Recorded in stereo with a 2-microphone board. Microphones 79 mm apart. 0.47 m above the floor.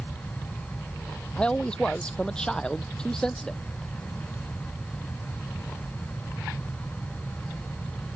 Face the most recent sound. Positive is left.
turn(degrees=5)  # may be behind; listen again after turning